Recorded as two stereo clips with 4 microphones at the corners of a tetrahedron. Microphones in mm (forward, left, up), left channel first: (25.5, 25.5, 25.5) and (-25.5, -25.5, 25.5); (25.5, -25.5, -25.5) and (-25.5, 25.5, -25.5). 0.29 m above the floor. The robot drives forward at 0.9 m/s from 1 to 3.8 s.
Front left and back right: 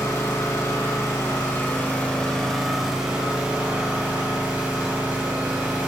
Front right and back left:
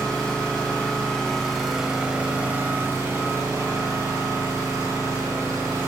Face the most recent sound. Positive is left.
turn(degrees=160)